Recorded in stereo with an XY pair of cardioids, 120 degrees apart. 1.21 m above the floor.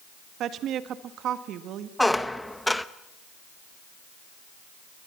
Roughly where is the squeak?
Ahead.